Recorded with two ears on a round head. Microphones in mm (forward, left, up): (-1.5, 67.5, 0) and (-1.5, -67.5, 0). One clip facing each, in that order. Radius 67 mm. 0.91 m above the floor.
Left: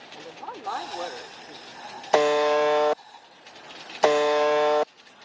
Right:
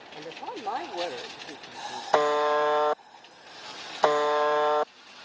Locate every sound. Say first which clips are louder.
0.1 s a woman speaking: right 1 dB; 15° right (ahead or behind); by 2.0 s 20° right (ahead or behind)
2.1 s a buzzer: left 3 dB; 20° left (ahead or behind)